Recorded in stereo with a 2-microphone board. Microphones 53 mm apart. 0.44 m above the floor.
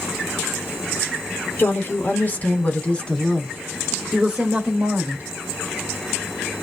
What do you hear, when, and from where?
1.6 s a woman speaking: 40° left (ahead or behind), 1.5 m; by 5.3 s 35° right (ahead or behind), 1.2 m